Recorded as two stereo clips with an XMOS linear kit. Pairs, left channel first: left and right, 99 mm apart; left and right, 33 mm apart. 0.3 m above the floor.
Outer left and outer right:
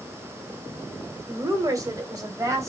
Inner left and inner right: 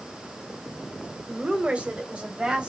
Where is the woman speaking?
35° right (ahead or behind), 1.5 m; by 2.7 s 30° right (ahead or behind), 1.7 m.